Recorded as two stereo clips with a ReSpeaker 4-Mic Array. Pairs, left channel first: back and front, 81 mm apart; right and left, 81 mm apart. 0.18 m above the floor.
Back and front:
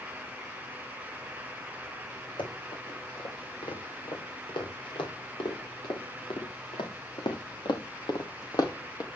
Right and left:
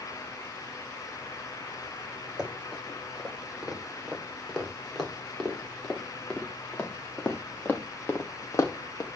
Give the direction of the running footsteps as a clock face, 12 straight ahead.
6 o'clock.